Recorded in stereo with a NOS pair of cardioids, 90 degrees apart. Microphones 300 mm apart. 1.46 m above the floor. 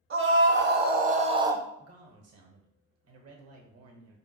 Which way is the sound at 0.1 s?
45° right.